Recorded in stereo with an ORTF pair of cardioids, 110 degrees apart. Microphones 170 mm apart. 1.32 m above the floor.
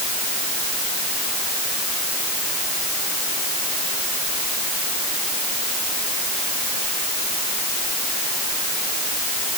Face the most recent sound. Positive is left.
No sound to turn to.